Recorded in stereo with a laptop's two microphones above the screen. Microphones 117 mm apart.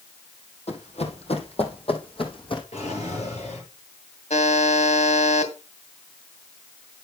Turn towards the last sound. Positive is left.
turn(degrees=75)  # may be behind; listen again after turning